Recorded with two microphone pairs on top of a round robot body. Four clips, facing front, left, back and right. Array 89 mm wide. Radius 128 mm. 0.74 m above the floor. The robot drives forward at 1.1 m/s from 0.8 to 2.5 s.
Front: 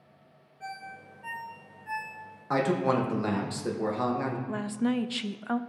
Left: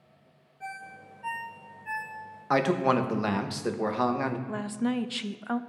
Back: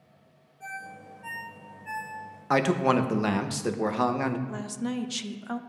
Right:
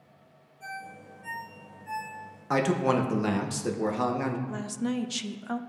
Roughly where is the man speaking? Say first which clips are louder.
Left 1 dB, back 3 dB; behind left.